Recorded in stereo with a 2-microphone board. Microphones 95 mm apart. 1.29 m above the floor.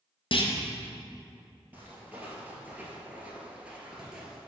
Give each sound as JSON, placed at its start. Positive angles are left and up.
{"t": 0.3, "sound": "a clunk", "side_deg": 60, "distance_m": 0.6}
{"t": 1.7, "sound": "footsteps", "side_deg": -15, "distance_m": 1.7}